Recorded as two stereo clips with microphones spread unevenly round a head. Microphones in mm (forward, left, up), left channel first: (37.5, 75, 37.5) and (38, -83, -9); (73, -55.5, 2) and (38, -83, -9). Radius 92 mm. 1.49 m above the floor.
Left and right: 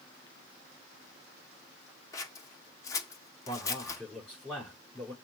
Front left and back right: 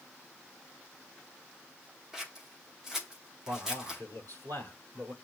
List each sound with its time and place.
2.1 s scissors: 120° left, 0.8 m
3.5 s a man speaking: 175° left, 5.5 m